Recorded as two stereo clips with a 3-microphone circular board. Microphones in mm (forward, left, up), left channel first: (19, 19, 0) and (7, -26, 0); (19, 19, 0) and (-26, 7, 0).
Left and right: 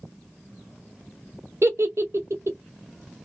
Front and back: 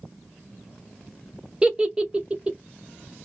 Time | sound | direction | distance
1.6 | a giggle | 95° right | 0.7 m